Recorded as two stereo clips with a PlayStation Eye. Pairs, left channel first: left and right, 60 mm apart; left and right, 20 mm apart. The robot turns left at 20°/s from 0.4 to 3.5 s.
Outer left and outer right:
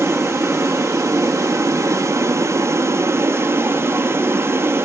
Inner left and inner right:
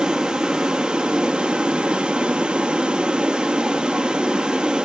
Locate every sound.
0.0 s running water: 65° right, 1.1 m; by 4.9 s 125° right, 1.1 m